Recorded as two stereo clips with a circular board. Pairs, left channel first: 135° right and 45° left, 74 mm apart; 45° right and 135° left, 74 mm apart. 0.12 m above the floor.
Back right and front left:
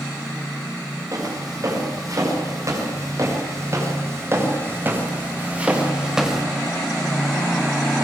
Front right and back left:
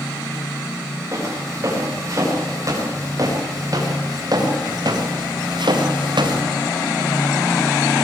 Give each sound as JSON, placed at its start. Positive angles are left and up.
{"t": 1.1, "sound": "footsteps", "azimuth_deg": 85, "distance_m": 7.5}